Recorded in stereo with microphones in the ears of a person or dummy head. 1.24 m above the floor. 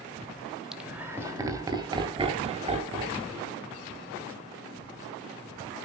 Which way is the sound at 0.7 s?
5° right (ahead or behind).